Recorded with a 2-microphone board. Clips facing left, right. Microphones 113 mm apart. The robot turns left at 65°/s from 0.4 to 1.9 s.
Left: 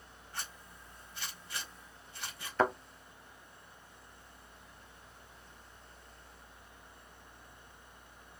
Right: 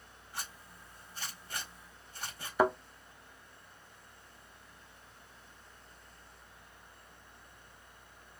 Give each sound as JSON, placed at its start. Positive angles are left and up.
{"t": 0.3, "sound": "a zipper", "side_deg": -10, "distance_m": 1.5}
{"t": 2.6, "sound": "a thud", "side_deg": -15, "distance_m": 0.7}